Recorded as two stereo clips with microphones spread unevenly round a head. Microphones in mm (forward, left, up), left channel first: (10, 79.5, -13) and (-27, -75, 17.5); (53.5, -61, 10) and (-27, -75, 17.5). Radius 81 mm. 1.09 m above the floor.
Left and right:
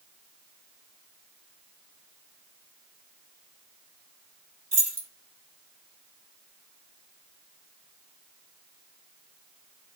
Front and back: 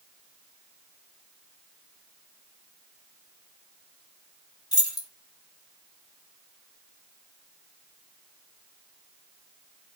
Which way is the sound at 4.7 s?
30° right.